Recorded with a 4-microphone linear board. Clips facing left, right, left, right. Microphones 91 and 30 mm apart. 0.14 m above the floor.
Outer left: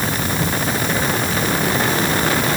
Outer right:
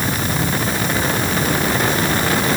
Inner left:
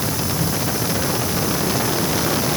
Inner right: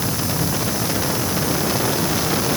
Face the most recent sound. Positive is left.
No sound to turn to.